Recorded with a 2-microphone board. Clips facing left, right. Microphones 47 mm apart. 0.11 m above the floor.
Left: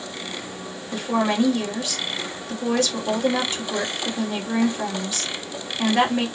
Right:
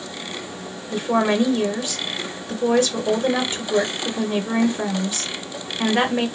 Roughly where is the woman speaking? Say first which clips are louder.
Right 3 dB; right.